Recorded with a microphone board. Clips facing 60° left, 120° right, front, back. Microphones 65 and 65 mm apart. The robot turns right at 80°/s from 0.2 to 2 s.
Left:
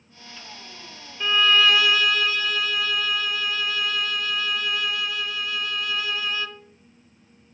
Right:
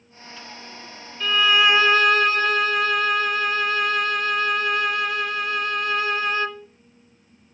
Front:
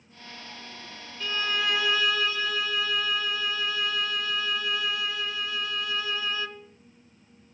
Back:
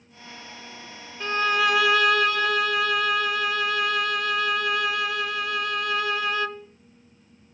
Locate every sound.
1.2 s a violin: 135° left, 0.8 m; by 6.7 s 160° right, 0.8 m